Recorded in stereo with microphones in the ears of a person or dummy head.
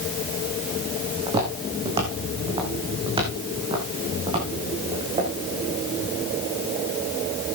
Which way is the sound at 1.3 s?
30° right (ahead or behind).